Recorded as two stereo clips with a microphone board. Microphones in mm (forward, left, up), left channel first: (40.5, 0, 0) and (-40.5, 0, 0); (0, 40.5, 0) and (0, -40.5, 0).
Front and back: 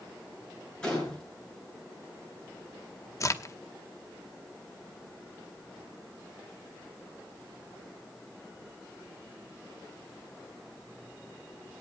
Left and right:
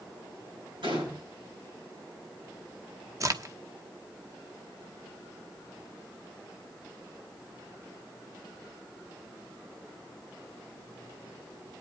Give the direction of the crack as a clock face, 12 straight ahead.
2 o'clock.